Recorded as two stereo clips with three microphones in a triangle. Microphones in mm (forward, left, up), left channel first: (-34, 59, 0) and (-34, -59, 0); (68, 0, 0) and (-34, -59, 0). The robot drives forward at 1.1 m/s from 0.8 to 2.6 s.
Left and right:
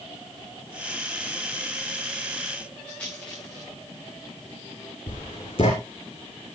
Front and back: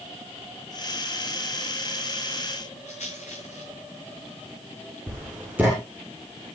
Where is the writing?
135° left, 7 m.